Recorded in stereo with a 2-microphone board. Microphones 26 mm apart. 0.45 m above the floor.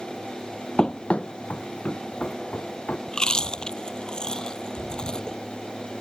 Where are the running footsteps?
30° left (ahead or behind); by 3.0 s 70° left (ahead or behind).